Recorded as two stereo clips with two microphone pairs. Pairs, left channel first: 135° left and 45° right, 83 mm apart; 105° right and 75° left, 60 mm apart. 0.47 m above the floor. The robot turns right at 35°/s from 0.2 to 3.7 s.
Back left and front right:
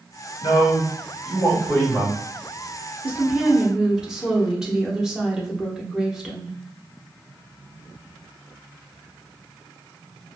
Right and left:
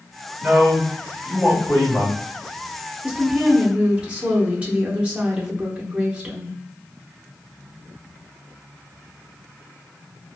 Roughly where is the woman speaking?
Ahead.